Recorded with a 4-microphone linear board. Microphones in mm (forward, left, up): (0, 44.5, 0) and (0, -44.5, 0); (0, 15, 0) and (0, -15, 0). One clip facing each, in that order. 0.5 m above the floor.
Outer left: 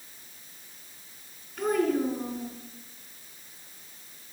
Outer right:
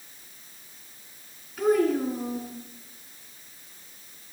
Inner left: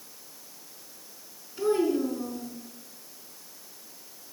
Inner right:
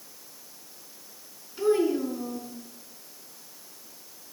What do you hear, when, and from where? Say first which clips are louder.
1.6 s a child speaking: outer right 3 dB, inner right 1 dB; 5° right (ahead or behind), 4.5 m